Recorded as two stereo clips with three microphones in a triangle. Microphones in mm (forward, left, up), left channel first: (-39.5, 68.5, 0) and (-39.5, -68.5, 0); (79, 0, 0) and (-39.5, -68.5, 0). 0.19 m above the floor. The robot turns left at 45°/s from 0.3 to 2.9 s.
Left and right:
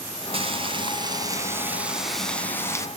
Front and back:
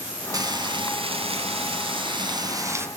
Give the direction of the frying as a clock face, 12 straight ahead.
3 o'clock.